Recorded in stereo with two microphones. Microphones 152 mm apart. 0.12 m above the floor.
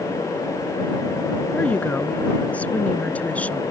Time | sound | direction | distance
1.5 | a woman speaking | 10° left (ahead or behind) | ?